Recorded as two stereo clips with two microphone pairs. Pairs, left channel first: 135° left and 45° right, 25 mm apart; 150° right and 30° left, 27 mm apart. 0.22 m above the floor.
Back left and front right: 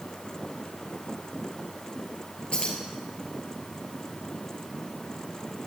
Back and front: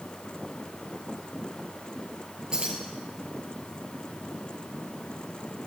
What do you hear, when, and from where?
2.5 s keys jangling: 90° left, 3 m